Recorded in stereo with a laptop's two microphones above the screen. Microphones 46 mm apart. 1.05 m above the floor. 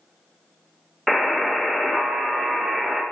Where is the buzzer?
5° right (ahead or behind), 0.5 m.